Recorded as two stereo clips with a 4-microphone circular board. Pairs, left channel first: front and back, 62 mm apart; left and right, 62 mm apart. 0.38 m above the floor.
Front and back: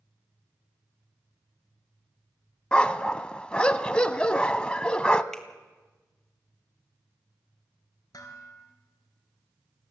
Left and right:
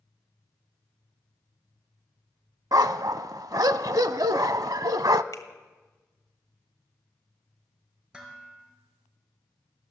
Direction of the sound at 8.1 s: 10° right.